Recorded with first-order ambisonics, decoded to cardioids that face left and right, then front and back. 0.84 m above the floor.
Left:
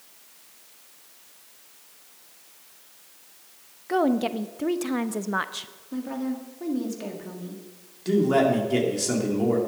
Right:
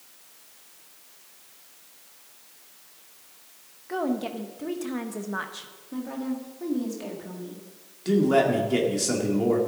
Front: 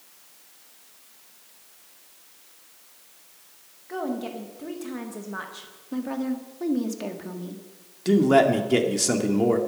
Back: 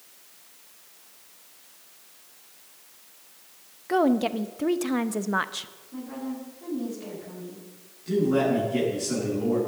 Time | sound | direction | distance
3.9 | a woman speaking | 145° left | 0.6 m
5.9 | a woman speaking | 10° left | 1.9 m
8.1 | a man speaking | straight ahead | 2 m